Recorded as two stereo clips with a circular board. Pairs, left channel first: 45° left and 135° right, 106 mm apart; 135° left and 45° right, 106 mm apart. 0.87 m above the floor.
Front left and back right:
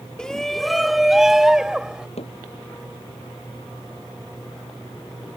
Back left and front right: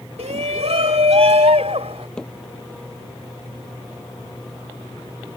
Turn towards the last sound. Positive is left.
turn(degrees=50)